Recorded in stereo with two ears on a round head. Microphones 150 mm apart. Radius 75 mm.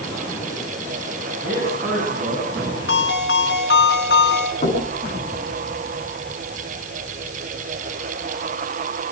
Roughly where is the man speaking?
Centre.